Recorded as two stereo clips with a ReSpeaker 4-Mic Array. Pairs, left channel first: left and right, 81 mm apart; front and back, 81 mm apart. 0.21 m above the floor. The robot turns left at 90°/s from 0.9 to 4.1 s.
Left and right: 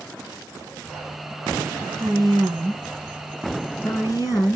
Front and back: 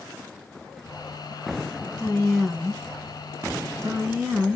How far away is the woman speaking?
About 2.5 m.